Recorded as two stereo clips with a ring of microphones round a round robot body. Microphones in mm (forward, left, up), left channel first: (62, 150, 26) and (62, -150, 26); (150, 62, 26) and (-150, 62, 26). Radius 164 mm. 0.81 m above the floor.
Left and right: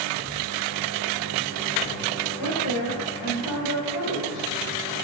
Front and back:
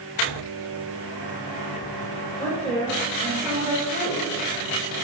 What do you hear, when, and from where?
2.4 s a woman speaking: 80° left, 4 m; by 4.5 s 120° left, 3.5 m